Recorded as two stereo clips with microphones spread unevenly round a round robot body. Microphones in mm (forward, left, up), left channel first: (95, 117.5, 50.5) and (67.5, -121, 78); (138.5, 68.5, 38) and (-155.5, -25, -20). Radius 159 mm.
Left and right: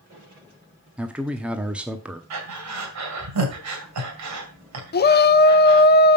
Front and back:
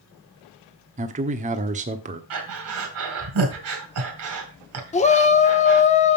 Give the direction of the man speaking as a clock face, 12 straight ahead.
6 o'clock.